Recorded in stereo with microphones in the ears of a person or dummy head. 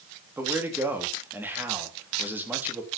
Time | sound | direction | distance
0.4 | a man speaking | 5° right (ahead or behind) | 3 m